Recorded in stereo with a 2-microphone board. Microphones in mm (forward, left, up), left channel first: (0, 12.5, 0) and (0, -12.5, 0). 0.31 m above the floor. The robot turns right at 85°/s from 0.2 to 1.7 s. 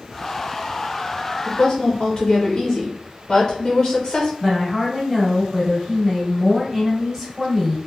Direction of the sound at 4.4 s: 5° right (ahead or behind).